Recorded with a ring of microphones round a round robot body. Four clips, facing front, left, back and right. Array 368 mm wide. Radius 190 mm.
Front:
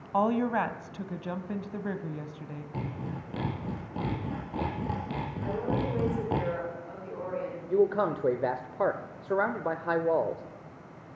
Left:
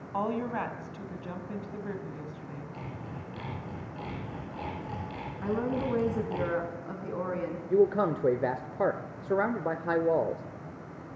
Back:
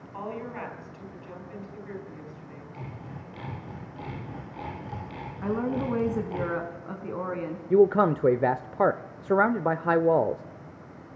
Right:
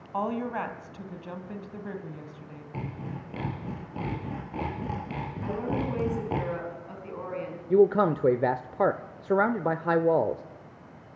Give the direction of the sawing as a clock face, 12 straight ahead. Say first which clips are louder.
Right 3 dB, front 6 dB; 1 o'clock.